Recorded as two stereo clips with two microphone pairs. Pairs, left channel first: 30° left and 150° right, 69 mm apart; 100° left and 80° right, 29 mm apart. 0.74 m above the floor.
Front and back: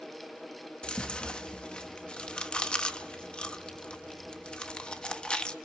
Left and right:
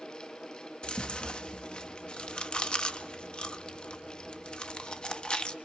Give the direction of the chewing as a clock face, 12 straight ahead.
9 o'clock.